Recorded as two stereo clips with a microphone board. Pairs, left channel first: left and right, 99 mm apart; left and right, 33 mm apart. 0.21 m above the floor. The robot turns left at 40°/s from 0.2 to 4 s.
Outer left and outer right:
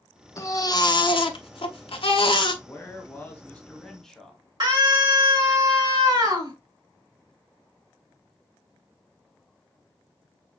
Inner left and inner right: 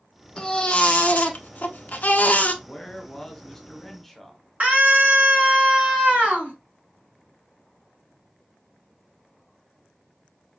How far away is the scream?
About 3 m.